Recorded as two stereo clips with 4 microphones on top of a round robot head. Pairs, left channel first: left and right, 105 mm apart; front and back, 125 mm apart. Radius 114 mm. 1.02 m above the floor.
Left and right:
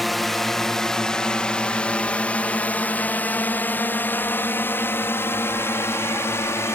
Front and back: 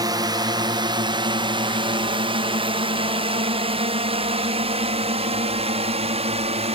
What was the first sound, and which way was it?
A drone, straight behind.